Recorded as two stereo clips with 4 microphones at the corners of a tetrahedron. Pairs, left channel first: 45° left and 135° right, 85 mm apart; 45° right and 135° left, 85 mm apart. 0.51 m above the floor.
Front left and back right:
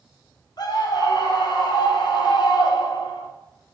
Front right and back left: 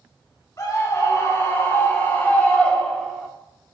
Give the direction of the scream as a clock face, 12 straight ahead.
12 o'clock.